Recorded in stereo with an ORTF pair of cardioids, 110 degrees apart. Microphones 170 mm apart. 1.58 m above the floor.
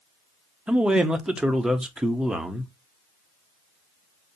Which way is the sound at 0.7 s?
5° right.